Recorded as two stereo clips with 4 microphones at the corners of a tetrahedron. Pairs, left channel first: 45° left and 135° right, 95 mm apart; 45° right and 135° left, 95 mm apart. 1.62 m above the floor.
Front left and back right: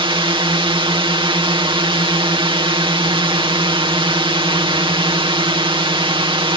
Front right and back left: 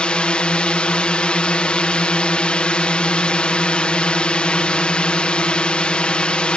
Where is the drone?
125° right.